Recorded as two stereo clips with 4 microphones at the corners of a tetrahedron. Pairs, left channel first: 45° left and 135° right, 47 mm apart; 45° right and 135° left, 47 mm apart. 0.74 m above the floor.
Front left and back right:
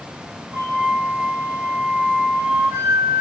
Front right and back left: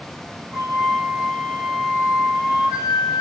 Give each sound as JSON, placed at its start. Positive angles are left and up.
{"t": 0.5, "sound": "a flute", "azimuth_deg": -160, "distance_m": 3.5}